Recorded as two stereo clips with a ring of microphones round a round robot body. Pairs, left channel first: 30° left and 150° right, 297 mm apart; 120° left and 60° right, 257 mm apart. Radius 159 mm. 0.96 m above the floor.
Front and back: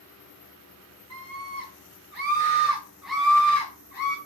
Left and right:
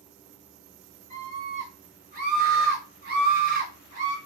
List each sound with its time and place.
1.1 s a scream: 125° right, 1.3 m; by 4.2 s 5° right, 0.9 m